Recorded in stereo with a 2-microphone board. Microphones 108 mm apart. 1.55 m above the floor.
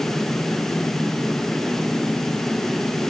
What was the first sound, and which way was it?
Only background noise.